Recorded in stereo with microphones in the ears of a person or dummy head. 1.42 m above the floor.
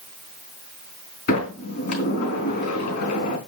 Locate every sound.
1.3 s a sliding door: 55° left (ahead or behind), 3.5 m